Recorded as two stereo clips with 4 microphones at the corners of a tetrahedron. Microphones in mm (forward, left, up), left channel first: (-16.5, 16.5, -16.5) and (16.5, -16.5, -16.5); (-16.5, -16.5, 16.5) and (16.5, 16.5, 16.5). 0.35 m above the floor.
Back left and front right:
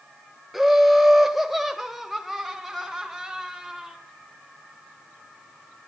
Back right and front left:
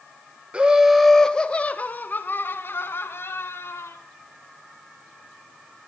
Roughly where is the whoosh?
No whoosh in this recording.